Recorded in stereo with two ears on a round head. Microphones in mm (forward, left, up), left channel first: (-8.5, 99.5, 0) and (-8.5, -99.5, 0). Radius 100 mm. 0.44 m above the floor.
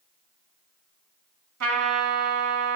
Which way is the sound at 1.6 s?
75° right (ahead or behind).